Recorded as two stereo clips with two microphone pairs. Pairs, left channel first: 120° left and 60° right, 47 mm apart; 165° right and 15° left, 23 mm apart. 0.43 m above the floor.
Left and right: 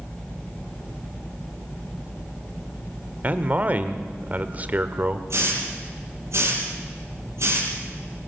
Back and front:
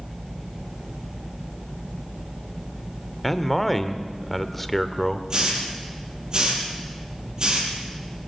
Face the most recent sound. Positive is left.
turn(degrees=-35)